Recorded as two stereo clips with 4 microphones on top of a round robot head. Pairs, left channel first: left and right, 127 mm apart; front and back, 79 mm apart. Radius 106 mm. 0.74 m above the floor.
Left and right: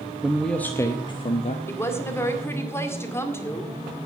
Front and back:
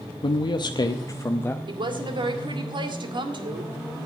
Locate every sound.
0.2 s a man speaking: 5° right, 0.9 m; by 1.6 s 65° left, 0.9 m
1.7 s a woman speaking: 160° left, 2 m